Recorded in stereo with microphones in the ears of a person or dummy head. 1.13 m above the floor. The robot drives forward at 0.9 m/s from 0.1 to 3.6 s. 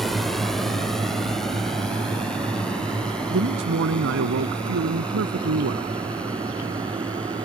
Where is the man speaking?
65° right (ahead or behind).